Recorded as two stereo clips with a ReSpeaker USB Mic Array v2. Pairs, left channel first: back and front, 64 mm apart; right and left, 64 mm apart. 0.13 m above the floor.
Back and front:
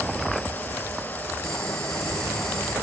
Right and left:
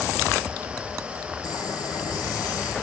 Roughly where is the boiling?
Right.